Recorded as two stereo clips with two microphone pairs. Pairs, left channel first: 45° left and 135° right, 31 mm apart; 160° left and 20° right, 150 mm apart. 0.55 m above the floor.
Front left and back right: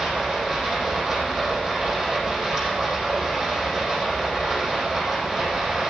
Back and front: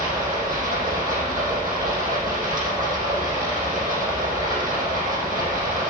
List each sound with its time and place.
0.0 s running water: 45° right, 5 m